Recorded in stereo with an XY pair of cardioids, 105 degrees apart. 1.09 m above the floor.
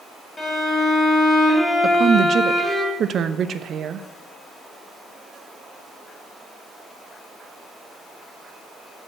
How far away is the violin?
About 3 m.